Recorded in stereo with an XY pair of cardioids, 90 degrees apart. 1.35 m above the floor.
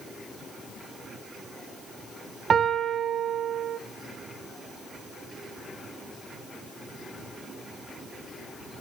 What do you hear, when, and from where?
2.5 s a piano: 55° right, 0.7 m